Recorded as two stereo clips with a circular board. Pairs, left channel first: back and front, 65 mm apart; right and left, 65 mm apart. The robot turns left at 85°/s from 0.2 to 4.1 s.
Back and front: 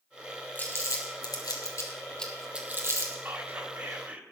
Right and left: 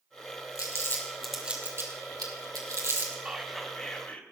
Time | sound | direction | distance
0.6 | crumpling | 115° right | 2 m
3.2 | whispering | 30° left | 1.9 m